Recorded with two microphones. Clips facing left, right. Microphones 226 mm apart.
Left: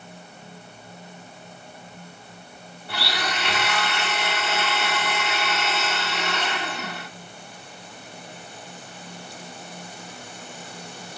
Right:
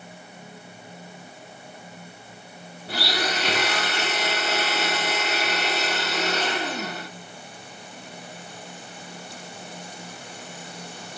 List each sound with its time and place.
2.9 s a blender: 40° right (ahead or behind), 1.4 m